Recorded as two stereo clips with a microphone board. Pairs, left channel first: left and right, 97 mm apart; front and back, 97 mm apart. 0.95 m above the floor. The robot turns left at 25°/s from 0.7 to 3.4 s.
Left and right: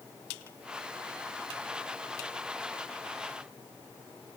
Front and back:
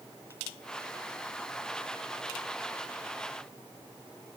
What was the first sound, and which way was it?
Only background noise.